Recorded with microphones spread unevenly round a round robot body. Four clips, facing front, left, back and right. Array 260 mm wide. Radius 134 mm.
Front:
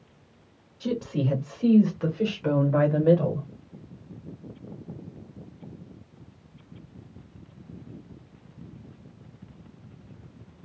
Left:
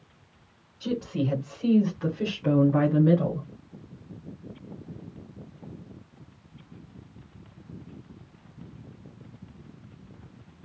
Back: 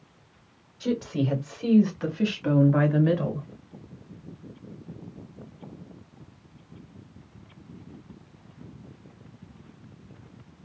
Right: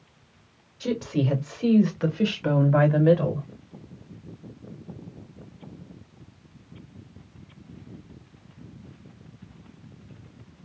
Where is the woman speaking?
80° right, 1.5 m.